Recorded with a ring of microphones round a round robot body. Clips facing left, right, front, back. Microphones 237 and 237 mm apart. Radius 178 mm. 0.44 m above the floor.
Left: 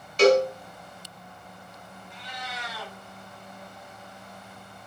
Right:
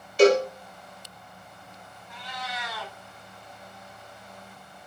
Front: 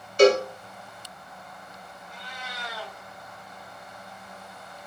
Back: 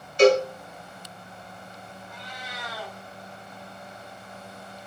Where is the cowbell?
15° right, 1.4 m.